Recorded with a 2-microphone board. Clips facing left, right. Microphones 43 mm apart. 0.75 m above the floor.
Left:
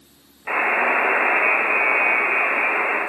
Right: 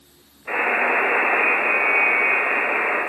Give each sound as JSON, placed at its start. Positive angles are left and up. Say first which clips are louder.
{"t": 0.5, "sound": "a buzzer", "louder": "left 1 dB", "side_deg": 50, "distance_m": 1.3}